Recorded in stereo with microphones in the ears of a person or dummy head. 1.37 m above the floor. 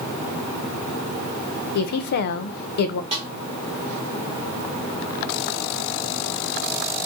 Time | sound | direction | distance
1.8 | a woman speaking | 55° left (ahead or behind) | 0.5 m
3.1 | a snare drum | 25° right (ahead or behind) | 1.1 m